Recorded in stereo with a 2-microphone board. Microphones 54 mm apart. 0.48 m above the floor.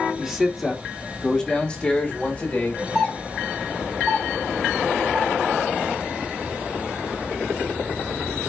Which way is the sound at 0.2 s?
15° right (ahead or behind).